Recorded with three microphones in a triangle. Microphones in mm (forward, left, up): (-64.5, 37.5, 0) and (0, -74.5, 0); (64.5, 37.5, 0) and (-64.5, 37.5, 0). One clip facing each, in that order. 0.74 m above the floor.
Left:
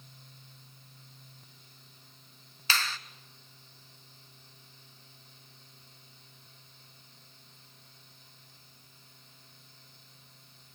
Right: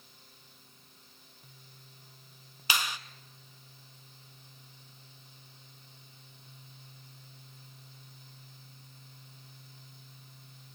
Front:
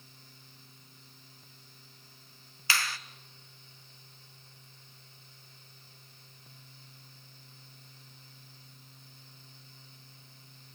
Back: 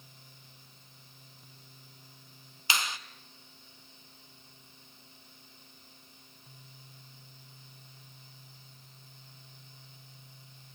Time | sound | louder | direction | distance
2.7 | a finger snap | even, even | 125° right | 0.5 m